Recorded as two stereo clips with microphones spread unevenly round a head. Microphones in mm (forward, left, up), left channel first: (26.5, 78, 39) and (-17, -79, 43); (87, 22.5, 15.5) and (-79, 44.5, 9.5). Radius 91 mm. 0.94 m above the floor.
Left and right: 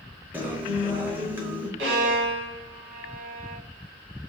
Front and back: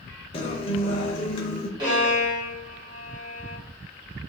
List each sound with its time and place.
0.3 s a guitar: 35° right, 0.7 m
1.8 s a violin: 120° right, 2.5 m